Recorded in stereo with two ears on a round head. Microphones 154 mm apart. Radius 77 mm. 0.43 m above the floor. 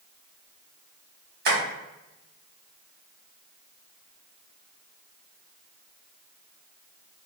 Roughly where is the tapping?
Right.